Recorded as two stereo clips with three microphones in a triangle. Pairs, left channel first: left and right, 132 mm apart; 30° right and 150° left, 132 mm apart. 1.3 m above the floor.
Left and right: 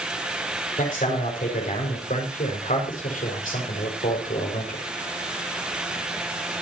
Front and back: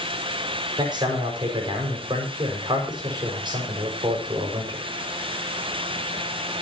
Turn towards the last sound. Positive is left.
turn(degrees=95)